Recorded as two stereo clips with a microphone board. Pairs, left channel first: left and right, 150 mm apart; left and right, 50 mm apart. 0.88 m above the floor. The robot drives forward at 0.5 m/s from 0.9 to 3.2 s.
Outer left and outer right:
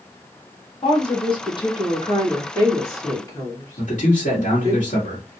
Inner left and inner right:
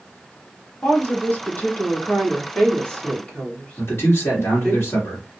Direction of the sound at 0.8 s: 35° left (ahead or behind).